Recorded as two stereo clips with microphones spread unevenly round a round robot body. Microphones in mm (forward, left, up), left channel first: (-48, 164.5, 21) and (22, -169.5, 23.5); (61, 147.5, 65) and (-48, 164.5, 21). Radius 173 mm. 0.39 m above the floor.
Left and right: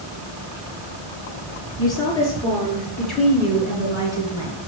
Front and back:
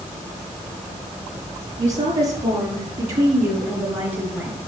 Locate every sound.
1.8 s a woman speaking: straight behind, 7 m; by 4.6 s 155° right, 4.5 m